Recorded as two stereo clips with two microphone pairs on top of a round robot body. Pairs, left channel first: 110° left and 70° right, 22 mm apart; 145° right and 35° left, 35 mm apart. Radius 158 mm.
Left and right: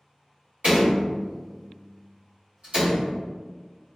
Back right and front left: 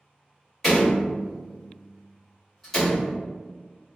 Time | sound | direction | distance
0.6 | a door slam | 60° right | 1.6 m